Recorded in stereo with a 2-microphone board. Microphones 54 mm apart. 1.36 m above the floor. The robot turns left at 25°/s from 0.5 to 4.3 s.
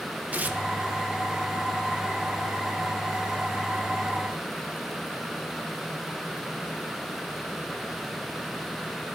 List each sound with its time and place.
0.3 s tearing paper: 30° right (ahead or behind), 0.6 m; by 0.6 s 25° right (ahead or behind), 0.6 m